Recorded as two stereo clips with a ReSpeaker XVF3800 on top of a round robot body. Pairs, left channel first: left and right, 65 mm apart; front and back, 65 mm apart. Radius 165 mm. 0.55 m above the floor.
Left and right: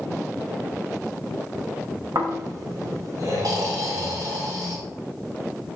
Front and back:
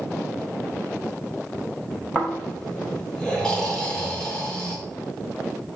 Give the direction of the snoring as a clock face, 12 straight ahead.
3 o'clock.